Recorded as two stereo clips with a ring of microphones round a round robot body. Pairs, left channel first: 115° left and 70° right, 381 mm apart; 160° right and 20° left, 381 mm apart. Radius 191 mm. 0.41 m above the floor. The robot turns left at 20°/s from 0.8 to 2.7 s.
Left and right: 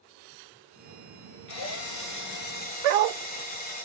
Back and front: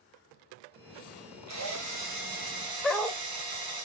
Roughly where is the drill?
Left.